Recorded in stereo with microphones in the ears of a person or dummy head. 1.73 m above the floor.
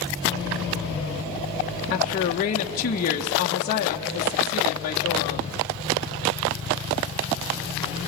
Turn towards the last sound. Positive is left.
turn(degrees=45)  # may be behind; listen again after turning